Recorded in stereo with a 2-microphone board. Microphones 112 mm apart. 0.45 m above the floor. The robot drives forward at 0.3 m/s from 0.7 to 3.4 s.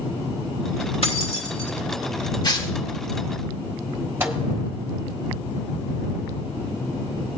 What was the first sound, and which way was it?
Keys jangling, 65° left (ahead or behind).